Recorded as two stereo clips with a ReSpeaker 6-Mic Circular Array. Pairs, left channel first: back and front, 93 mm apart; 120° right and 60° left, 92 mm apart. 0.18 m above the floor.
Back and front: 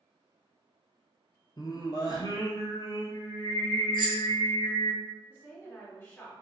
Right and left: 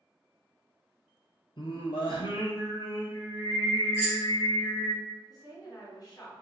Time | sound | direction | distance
1.6 | singing | 140° right | 0.6 m
3.9 | keys jangling | 175° left | 1.4 m
5.3 | a woman speaking | 140° right | 1.9 m